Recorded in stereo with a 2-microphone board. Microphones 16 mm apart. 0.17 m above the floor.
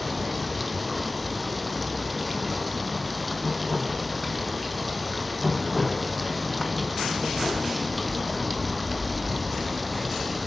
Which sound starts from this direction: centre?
Running water, at 0.0 s.